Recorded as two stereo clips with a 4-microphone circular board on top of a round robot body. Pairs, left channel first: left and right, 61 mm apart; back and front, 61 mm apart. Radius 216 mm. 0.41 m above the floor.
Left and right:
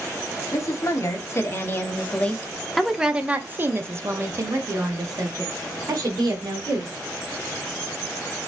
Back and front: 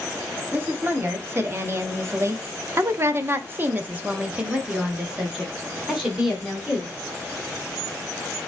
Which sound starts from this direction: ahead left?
A woman speaking, at 0.5 s.